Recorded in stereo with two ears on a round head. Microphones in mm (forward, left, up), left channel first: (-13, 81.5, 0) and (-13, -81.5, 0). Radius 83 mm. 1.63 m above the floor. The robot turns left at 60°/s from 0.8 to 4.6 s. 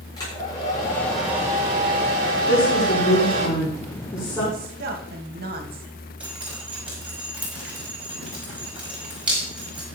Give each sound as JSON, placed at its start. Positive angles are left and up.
{"t": 0.2, "sound": "a hair dryer", "azimuth_deg": 20, "distance_m": 5.0}
{"t": 2.5, "sound": "a woman speaking", "azimuth_deg": 130, "distance_m": 6.0}
{"t": 4.5, "sound": "a woman speaking", "side_deg": -45, "distance_m": 2.5}
{"t": 6.2, "sound": "dripping", "side_deg": -5, "distance_m": 5.5}